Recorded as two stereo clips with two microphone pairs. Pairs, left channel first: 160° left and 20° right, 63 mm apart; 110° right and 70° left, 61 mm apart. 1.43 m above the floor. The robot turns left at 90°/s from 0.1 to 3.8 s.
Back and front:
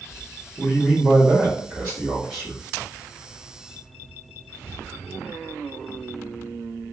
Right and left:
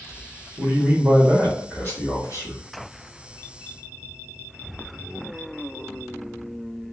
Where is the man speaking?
70° left, 1.4 m; by 2.7 s 115° right, 1.4 m.